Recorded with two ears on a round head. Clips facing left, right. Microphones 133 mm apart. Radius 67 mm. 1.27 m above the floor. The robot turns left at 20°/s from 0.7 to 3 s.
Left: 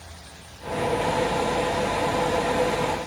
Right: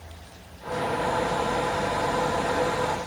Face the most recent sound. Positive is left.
No sound to turn to.